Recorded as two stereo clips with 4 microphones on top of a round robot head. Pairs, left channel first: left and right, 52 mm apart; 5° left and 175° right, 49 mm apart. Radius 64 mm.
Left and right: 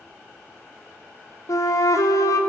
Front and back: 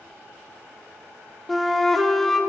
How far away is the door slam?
I don't hear a door slam.